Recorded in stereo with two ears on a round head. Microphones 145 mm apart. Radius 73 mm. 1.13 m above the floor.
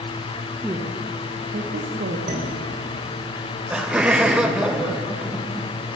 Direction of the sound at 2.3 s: 55° right (ahead or behind).